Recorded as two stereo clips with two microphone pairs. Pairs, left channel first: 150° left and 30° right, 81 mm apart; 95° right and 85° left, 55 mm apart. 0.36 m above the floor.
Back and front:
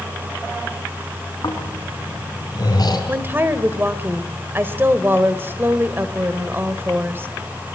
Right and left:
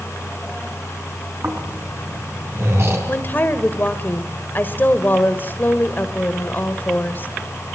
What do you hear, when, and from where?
1.4 s snoring: 120° left, 4.5 m
3.1 s a woman speaking: 80° right, 1.5 m